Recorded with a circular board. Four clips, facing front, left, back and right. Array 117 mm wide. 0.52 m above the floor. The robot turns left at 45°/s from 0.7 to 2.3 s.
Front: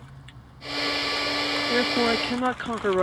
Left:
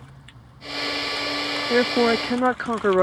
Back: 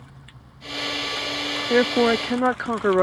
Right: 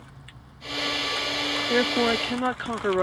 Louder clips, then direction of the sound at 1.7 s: Left 4 dB, back 6 dB; 160° left.